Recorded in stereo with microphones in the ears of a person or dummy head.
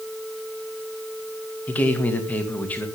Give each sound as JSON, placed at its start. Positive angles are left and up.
{"t": 1.7, "sound": "a man speaking", "side_deg": 10, "distance_m": 2.5}